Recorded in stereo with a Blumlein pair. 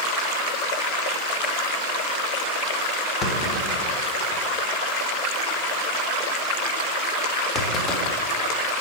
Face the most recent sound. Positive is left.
turn(degrees=15)